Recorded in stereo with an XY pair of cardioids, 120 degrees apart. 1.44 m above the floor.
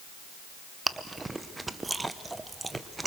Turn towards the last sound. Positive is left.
turn(degrees=-15)